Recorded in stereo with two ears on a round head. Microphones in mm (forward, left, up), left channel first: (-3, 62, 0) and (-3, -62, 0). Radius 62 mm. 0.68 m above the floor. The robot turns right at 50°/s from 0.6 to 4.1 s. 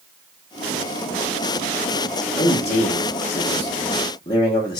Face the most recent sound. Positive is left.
turn(degrees=140)